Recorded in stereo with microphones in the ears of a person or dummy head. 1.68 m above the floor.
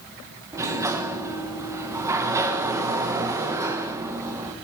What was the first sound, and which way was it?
A sliding door, 15° right (ahead or behind).